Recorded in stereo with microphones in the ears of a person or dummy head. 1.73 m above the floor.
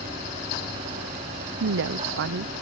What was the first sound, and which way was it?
A woman speaking, 60° right (ahead or behind).